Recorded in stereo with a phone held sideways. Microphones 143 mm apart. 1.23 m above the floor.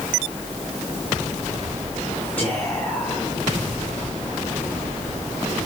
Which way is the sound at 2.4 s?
10° left (ahead or behind).